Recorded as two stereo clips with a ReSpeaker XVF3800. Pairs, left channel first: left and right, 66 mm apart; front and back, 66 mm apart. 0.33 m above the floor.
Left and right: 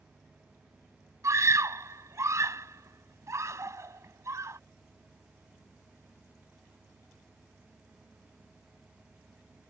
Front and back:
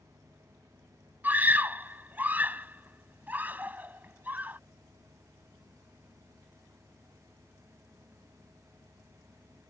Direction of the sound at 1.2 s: 120° right.